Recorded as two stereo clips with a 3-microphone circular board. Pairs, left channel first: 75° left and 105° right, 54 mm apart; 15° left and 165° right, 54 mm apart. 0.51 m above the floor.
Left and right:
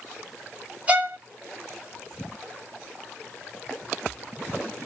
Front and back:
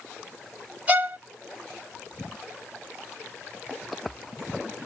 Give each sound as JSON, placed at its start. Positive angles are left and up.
{"t": 0.9, "sound": "a violin", "azimuth_deg": -145, "distance_m": 0.9}